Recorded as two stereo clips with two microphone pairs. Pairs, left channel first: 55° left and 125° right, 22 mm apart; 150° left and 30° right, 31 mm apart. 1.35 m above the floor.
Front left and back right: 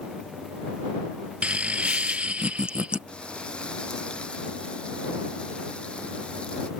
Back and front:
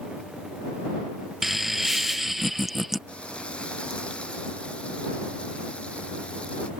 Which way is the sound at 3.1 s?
95° left.